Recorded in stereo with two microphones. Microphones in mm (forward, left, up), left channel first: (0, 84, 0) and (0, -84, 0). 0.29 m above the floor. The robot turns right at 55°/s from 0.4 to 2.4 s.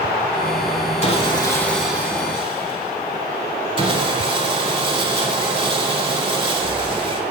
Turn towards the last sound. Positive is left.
turn(degrees=-150)